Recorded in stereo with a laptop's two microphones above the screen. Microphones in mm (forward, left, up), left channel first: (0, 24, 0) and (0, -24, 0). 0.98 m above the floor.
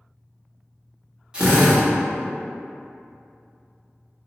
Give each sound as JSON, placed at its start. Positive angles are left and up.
{"t": 1.3, "sound": "a drill", "side_deg": -20, "distance_m": 1.3}